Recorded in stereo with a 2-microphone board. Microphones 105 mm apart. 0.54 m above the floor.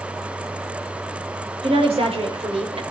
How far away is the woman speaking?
About 2 m.